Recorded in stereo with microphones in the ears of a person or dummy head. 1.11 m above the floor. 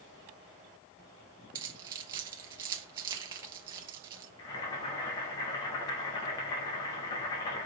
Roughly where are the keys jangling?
Centre.